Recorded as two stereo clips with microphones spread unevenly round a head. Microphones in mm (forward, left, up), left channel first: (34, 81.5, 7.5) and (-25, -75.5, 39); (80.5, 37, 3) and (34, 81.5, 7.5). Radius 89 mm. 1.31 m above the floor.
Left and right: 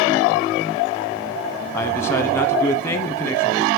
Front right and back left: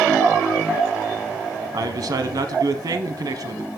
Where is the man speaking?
135° left, 0.7 m.